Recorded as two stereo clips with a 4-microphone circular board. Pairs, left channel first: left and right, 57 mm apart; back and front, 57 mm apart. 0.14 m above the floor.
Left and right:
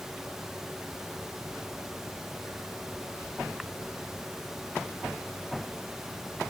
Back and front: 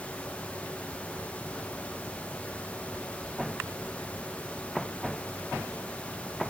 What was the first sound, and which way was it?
Only background noise.